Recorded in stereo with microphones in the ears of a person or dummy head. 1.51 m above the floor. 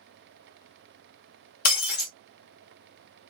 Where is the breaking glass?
55° left (ahead or behind), 1.6 m.